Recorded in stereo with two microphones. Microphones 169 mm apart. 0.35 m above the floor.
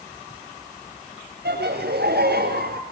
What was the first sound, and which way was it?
Laughter, 80° right.